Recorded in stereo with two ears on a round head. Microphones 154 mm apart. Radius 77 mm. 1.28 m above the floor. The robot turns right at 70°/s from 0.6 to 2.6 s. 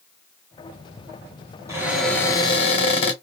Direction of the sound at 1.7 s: 20° right.